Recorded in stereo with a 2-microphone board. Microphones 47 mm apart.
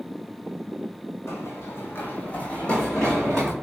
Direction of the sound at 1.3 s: 80° left.